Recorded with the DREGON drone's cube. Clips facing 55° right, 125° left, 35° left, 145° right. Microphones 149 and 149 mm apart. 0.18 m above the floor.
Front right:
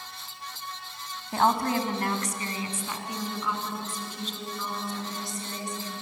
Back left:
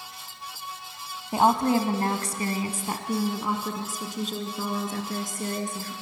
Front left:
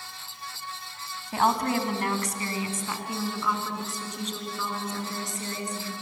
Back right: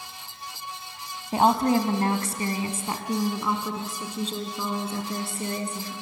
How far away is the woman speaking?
About 1.1 m.